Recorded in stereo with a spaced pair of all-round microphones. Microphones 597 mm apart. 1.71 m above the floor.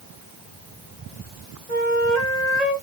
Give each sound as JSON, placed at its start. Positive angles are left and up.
{"t": 1.7, "sound": "a flute", "side_deg": -90, "distance_m": 1.8}